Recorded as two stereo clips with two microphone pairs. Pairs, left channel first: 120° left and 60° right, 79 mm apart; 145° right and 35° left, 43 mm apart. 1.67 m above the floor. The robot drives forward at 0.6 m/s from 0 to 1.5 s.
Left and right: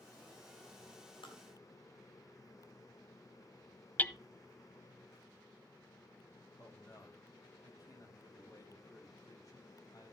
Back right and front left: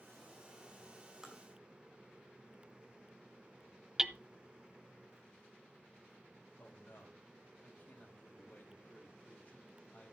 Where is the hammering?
95° left, 0.6 m.